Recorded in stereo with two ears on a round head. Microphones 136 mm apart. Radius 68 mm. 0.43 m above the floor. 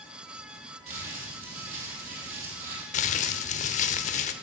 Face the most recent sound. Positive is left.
turn(degrees=50)  # may be behind; listen again after turning